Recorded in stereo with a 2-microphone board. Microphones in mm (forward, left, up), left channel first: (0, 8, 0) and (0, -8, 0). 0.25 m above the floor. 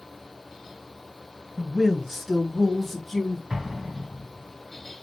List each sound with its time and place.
1.6 s a man speaking: 40° right (ahead or behind), 1.9 m; by 3.4 s 25° left (ahead or behind), 1.7 m
3.5 s an explosion: 45° right (ahead or behind), 1.3 m